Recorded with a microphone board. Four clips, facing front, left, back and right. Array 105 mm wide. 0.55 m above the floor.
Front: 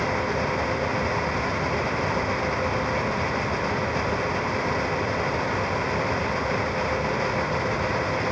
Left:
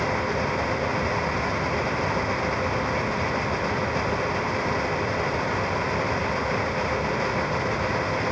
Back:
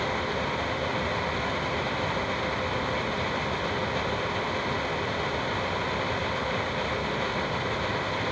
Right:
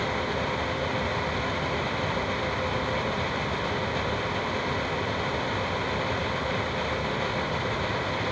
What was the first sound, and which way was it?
Only background noise.